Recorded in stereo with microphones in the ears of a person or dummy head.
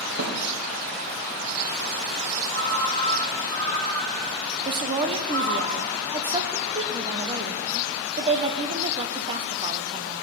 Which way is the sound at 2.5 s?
15° left (ahead or behind).